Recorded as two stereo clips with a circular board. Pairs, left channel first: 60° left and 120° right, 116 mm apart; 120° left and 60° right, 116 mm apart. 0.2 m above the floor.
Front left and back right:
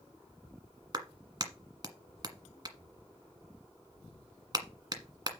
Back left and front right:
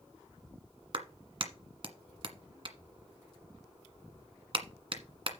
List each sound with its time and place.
0.9 s a clap: 80° right, 1.4 m